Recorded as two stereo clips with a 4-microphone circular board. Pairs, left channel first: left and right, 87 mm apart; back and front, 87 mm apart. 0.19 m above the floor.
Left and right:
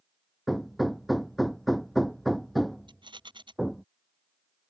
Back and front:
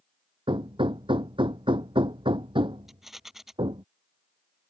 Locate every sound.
0.5 s hammering: straight ahead
2.9 s a rattle: 85° right